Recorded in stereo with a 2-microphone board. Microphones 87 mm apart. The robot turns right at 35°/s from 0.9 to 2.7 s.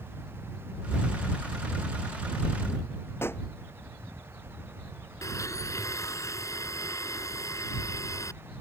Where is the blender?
35° left (ahead or behind).